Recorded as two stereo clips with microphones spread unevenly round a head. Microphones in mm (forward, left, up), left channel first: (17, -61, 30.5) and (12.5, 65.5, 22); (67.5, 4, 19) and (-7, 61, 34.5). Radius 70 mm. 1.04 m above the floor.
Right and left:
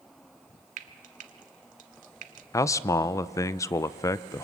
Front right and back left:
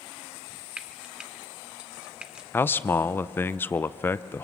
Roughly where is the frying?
Left.